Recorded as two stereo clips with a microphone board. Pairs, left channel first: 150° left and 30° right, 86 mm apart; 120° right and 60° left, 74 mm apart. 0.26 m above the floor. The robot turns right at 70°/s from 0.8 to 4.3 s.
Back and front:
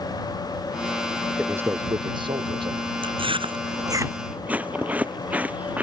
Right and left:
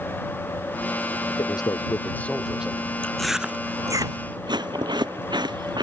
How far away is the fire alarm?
I don't hear a fire alarm.